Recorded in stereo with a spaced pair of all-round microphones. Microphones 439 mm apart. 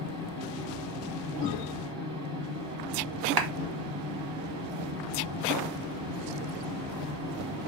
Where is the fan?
15° right (ahead or behind), 1.6 m.